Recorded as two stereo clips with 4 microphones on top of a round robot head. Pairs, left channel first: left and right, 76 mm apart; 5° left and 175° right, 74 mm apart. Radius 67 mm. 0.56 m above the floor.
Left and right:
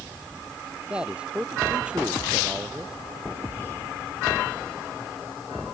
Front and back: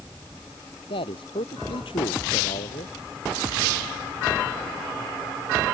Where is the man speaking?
15° right.